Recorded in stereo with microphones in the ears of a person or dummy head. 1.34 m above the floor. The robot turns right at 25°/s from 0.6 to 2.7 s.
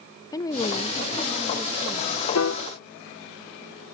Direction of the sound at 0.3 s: 165° left.